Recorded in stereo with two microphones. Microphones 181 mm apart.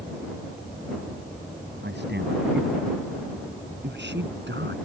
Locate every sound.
1.8 s a man speaking: 75° right (ahead or behind); by 4.8 s 85° right